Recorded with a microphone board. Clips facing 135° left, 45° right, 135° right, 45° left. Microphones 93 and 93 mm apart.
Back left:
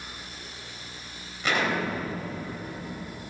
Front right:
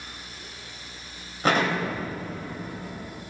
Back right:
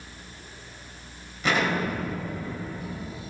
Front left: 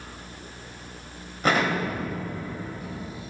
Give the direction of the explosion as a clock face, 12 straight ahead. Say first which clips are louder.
Front right 3 dB, front left 1 dB; 12 o'clock.